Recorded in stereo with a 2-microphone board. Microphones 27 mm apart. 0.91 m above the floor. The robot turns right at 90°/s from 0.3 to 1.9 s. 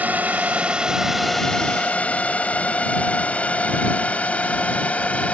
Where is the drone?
75° right (ahead or behind); by 5.3 s 60° left (ahead or behind).